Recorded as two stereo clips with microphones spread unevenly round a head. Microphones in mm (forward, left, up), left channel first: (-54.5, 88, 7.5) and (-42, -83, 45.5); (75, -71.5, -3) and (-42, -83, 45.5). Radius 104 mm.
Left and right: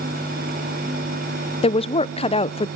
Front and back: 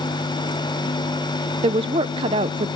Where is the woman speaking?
120° left, 0.7 m.